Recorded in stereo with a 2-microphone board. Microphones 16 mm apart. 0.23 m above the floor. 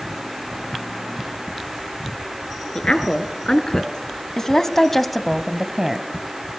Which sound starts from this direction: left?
A woman speaking, at 2.8 s.